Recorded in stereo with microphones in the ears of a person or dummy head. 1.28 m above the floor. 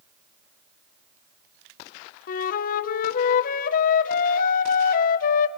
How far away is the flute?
About 0.8 m.